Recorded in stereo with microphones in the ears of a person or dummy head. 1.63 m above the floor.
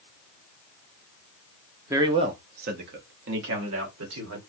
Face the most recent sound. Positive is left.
turn(degrees=-80)